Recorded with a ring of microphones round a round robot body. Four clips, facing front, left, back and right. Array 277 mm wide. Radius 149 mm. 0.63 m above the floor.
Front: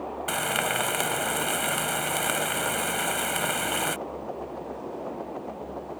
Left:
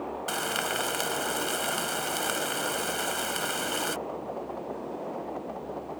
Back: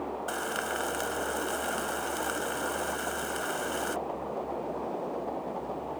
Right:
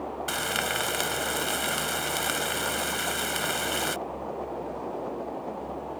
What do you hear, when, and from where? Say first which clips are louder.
0.3 s frying: even, front 7 dB; 10° right